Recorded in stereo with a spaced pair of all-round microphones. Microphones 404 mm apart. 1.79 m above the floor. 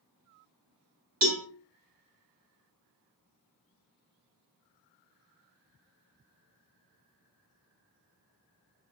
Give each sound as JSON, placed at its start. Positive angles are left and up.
{"t": 1.2, "sound": "a cowbell", "side_deg": -55, "distance_m": 1.0}